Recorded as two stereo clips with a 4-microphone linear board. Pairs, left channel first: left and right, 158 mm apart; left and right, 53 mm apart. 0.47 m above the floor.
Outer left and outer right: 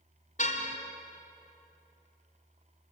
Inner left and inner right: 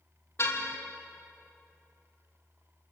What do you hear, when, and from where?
0.4 s a car horn: 55° left (ahead or behind), 2.5 m